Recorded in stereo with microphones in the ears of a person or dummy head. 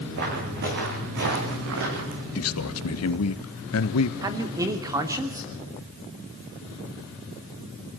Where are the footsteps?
55° right (ahead or behind), 6.5 m; by 2.2 s 70° right (ahead or behind), 5 m.